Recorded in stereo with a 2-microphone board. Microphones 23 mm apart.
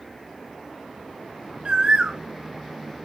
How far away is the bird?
About 0.5 m.